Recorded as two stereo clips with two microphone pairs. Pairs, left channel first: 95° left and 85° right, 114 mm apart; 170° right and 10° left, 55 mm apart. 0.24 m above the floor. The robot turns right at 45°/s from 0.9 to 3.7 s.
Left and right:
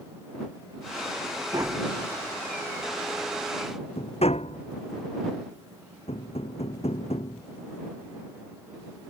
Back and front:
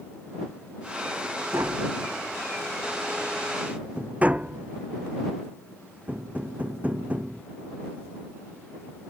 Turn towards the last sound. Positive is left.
turn(degrees=70)